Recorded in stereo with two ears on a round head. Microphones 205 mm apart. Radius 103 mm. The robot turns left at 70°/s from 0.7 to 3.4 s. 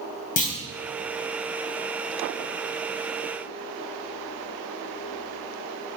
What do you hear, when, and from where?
0.4 s a clunk: 35° left (ahead or behind), 4.5 m